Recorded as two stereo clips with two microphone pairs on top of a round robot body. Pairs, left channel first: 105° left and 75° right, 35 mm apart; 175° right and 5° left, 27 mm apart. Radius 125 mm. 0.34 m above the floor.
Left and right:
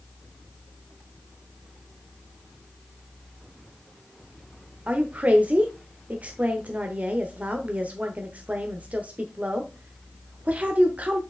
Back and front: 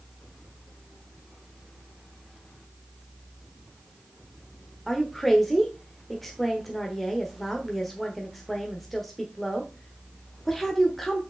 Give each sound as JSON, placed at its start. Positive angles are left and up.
{"t": 4.9, "sound": "a woman speaking", "azimuth_deg": -95, "distance_m": 1.2}